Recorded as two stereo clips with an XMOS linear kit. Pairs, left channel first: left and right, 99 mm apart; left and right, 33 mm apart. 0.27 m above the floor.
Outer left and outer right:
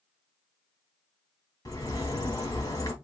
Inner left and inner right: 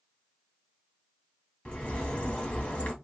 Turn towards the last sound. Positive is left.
turn(degrees=35)  # may be behind; listen again after turning